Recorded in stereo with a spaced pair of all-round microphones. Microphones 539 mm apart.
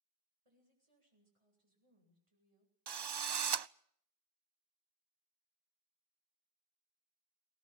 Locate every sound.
0.5 s a woman speaking: 70° right (ahead or behind), 9 m
2.9 s a drill: 50° right (ahead or behind), 0.5 m